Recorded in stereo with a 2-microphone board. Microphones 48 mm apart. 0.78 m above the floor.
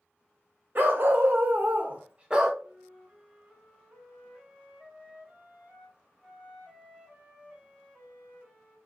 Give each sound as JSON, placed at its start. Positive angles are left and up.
{"t": 0.8, "sound": "a dog barking", "side_deg": -45, "distance_m": 0.7}
{"t": 2.6, "sound": "a flute", "side_deg": -15, "distance_m": 0.8}